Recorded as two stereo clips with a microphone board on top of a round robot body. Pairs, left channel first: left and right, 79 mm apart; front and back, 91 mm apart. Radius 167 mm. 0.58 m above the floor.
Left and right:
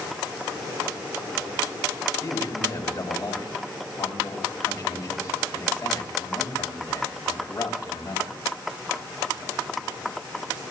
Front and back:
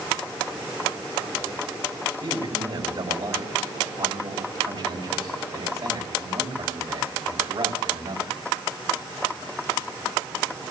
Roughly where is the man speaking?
Behind left.